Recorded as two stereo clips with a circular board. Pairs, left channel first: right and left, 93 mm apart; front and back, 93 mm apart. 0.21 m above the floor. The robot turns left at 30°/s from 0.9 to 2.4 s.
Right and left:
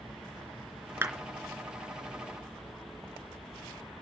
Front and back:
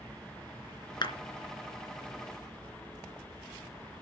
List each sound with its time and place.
1.0 s a clap: 25° left, 3 m; by 1.1 s 20° left, 3 m